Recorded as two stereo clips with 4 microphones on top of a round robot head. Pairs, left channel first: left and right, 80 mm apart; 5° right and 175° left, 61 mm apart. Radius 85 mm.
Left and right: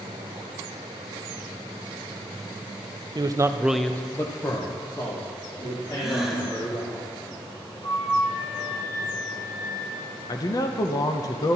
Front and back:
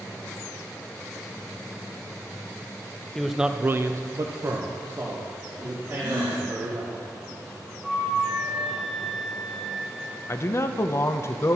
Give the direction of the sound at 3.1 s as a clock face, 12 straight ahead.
3 o'clock.